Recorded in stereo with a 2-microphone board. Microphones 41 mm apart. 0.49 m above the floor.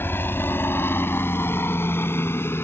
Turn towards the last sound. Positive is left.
turn(degrees=70)  # may be behind; listen again after turning